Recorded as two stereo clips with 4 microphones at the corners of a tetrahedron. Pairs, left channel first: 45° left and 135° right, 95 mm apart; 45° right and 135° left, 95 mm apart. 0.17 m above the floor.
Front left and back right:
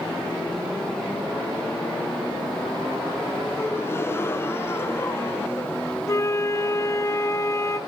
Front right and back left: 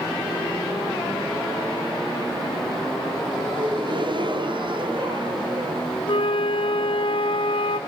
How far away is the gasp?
About 0.7 m.